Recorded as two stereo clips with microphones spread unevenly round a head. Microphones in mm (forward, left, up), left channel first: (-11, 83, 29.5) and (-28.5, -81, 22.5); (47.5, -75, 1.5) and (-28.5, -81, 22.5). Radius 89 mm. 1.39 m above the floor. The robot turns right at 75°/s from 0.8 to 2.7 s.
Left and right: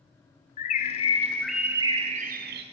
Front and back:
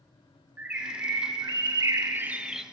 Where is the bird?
120° left, 0.5 m; by 2.6 s 100° right, 0.5 m.